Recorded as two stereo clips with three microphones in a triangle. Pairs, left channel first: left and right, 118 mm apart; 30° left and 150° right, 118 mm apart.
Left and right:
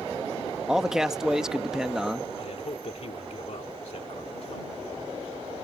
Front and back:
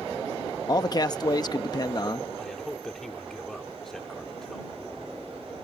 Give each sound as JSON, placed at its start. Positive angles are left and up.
{"t": 0.7, "sound": "a man speaking", "azimuth_deg": -5}
{"t": 2.4, "sound": "a man speaking", "azimuth_deg": 120}